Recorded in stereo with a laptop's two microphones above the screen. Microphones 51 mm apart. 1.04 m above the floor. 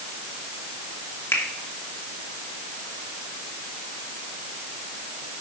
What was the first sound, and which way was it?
A finger snap, 45° left (ahead or behind).